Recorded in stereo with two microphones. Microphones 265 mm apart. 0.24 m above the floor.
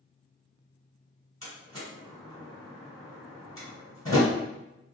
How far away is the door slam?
About 1.8 m.